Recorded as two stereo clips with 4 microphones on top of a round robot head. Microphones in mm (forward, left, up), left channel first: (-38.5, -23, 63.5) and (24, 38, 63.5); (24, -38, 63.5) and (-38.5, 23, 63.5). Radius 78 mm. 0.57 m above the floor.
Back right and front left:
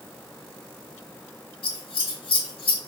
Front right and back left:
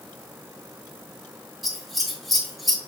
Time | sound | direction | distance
1.6 | scissors | 135° right | 2.5 m